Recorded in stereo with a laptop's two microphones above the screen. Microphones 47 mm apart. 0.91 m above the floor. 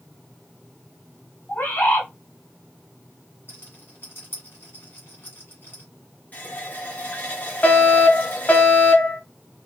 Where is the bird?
40° left (ahead or behind), 1.1 m.